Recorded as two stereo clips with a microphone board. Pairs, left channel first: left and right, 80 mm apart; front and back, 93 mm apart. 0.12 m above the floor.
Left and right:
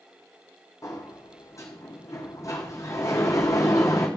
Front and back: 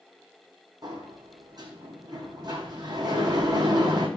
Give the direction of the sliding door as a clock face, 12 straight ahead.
7 o'clock.